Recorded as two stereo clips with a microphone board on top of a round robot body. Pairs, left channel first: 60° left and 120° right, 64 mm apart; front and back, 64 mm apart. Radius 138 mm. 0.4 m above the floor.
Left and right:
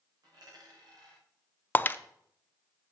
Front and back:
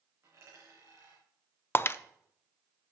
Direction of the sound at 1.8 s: 20° left.